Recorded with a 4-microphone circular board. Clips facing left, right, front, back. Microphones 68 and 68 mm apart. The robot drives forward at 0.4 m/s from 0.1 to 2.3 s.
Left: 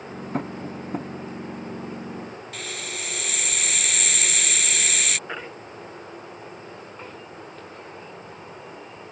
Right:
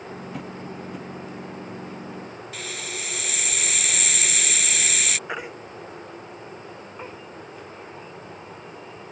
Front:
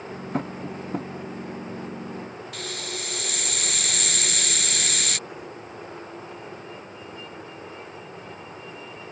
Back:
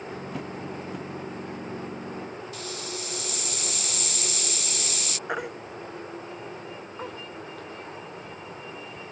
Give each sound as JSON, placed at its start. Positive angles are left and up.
{"t": 0.3, "sound": "tapping", "azimuth_deg": 45}
{"t": 2.5, "sound": "a hiss", "azimuth_deg": 0}
{"t": 5.3, "sound": "a baby crying", "azimuth_deg": -165}